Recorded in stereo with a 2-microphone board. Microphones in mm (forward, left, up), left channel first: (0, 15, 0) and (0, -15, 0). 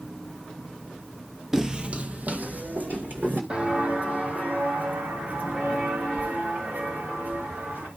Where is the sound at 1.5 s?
5° right (ahead or behind), 0.9 m; by 3.4 s 65° right (ahead or behind), 3 m.